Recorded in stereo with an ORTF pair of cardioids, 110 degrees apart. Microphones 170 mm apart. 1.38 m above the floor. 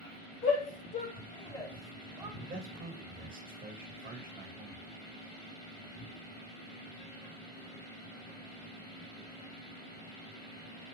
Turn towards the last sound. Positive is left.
turn(degrees=-55)